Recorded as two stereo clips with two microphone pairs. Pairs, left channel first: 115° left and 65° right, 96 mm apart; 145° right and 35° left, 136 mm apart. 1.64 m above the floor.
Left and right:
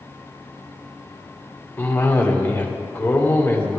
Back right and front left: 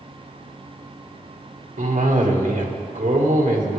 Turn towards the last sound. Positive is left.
turn(degrees=45)